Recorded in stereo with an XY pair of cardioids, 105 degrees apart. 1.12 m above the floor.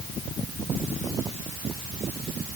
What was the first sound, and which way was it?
Only background noise.